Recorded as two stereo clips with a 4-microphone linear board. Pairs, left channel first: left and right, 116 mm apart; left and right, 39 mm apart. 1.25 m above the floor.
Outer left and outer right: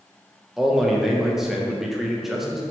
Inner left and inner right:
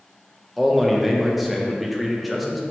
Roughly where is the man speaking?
Centre.